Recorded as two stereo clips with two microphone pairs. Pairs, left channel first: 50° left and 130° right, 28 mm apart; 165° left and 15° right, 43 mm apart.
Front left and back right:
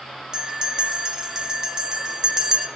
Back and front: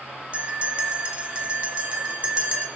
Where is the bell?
70° right, 0.9 m.